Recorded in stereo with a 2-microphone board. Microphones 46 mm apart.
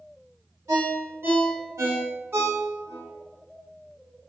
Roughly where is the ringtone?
Right.